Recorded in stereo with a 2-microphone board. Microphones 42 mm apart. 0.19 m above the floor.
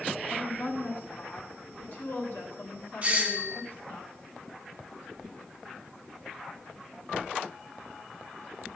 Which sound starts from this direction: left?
A woman speaking, at 0.3 s.